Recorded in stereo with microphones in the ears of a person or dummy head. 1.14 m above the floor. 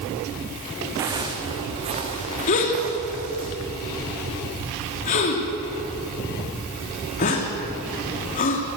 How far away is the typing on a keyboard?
No typing on a keyboard in this recording.